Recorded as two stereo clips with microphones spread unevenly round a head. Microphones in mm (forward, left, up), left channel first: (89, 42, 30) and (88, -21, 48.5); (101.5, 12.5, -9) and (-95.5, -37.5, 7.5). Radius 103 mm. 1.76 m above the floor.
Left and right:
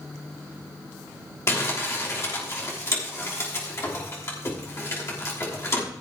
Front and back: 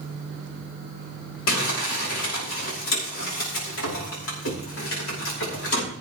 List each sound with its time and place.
1.5 s crumpling: 45° left, 5.5 m